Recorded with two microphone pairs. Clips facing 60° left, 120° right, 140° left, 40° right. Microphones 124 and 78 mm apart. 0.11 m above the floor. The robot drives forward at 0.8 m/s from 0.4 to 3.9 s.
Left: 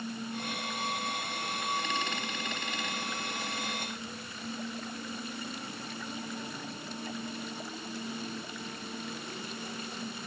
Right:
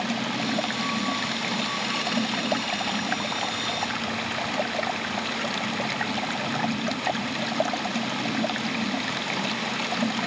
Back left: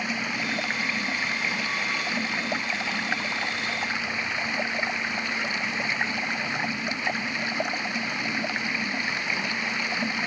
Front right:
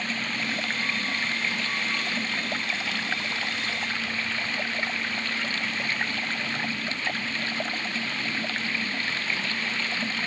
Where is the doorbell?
I don't hear a doorbell.